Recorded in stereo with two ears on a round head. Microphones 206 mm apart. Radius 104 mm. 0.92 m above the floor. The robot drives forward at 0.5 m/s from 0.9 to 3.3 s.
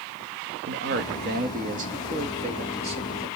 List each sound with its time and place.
0.7 s a man speaking: 50° right (ahead or behind), 1.2 m; by 3.3 s 25° right (ahead or behind), 2 m